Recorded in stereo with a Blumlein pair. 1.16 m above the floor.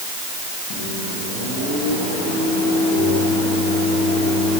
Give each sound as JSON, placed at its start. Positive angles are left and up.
{"t": 0.7, "sound": "a microwave", "azimuth_deg": 45, "distance_m": 9.0}